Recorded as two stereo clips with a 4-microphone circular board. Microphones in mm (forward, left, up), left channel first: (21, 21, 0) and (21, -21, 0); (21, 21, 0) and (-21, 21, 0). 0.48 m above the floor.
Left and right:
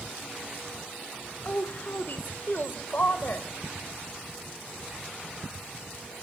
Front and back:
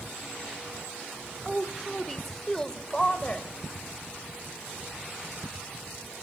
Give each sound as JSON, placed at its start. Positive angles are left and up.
{"t": 1.4, "sound": "a woman speaking", "azimuth_deg": 100, "distance_m": 1.4}